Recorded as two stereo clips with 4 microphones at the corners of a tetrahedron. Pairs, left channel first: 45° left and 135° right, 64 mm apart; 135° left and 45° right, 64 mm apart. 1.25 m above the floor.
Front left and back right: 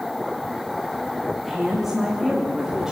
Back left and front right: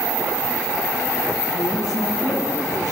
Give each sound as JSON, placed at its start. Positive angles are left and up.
{"t": 1.4, "sound": "a woman speaking", "azimuth_deg": 135, "distance_m": 3.0}